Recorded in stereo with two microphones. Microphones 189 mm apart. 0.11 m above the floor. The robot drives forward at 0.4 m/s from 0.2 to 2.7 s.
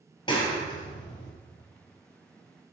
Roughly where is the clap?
Left.